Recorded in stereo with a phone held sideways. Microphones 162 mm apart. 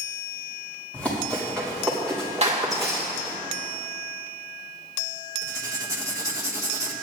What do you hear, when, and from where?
0.9 s running footsteps: 10° left (ahead or behind), 5 m; by 3.4 s 5° right (ahead or behind), 5.5 m
2.4 s a clap: 45° right (ahead or behind), 2 m
5.4 s writing: 20° right (ahead or behind), 1.6 m